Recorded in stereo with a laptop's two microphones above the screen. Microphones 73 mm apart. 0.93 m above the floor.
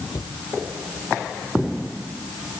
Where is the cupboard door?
70° left (ahead or behind).